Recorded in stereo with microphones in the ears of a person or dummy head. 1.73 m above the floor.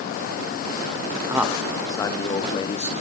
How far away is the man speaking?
About 0.5 m.